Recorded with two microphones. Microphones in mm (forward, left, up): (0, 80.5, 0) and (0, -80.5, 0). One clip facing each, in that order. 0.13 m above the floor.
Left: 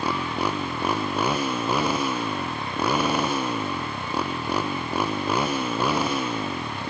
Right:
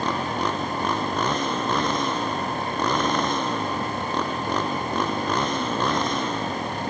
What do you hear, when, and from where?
0.0 s a motorcycle: 10° left (ahead or behind)